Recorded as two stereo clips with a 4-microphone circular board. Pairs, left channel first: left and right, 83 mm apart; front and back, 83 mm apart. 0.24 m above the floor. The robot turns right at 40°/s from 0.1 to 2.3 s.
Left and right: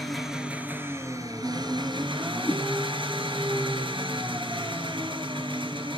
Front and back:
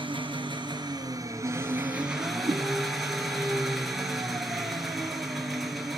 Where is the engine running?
Straight behind, 1.9 m; by 6.0 s 95° right, 1.9 m.